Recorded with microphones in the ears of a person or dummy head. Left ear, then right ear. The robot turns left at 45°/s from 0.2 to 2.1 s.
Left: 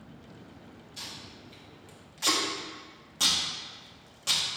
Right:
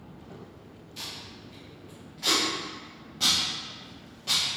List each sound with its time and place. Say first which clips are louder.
1.0 s tape being pulled: right 3 dB; 10° right (ahead or behind), 0.8 m; by 4.4 s 40° left (ahead or behind), 0.8 m